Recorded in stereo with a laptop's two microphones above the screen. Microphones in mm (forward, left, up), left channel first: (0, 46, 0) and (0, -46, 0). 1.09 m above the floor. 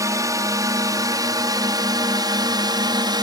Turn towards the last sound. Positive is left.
turn(degrees=-50)  # may be behind; listen again after turning